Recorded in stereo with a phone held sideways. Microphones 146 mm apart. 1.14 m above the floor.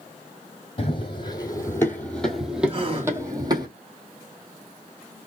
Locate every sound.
0.8 s running footsteps: 40° left (ahead or behind), 1.6 m; by 3.7 s 30° right (ahead or behind), 1.7 m
2.7 s a gasp: 35° right (ahead or behind), 1.6 m